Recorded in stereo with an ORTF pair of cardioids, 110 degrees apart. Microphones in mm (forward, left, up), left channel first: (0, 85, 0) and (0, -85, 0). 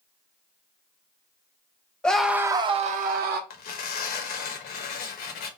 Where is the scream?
5° left, 0.9 m; by 3.4 s 70° right, 0.9 m.